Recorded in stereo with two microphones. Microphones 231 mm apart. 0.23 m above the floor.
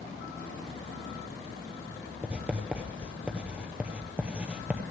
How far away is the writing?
About 0.9 m.